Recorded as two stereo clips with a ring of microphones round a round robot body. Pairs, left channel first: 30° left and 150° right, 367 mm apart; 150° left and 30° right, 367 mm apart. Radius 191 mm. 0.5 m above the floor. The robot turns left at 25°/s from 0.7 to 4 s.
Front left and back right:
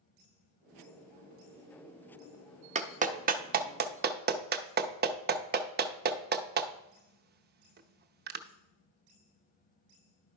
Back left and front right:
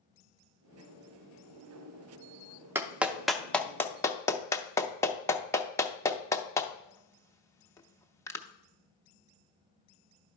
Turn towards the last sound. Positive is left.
turn(degrees=-135)